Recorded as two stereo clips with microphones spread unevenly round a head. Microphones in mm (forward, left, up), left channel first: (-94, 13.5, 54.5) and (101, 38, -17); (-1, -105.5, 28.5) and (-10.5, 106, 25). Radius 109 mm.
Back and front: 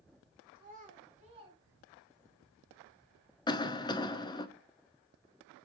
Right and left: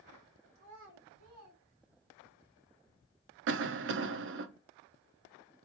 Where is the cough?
105° left, 0.5 m.